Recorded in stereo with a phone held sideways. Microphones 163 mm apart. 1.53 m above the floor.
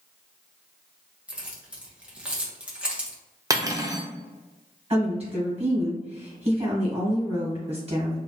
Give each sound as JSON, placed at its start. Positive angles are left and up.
{"t": 1.3, "sound": "keys jangling", "side_deg": -5, "distance_m": 1.1}
{"t": 3.5, "sound": "cutlery clinking", "side_deg": -20, "distance_m": 0.7}
{"t": 4.9, "sound": "a woman speaking", "side_deg": -40, "distance_m": 2.0}